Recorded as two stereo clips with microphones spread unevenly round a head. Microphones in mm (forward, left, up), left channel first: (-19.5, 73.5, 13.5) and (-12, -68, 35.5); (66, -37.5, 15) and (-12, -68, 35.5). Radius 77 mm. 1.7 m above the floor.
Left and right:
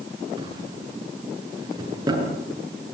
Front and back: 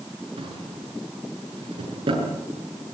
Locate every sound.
0.4 s a drawer: 150° right, 8 m